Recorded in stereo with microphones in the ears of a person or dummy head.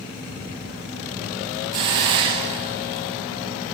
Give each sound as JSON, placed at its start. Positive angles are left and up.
{"t": 1.7, "sound": "a hiss", "side_deg": -30, "distance_m": 0.7}